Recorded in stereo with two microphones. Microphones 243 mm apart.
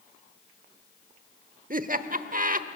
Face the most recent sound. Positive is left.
turn(degrees=-35)  # may be behind; listen again after turning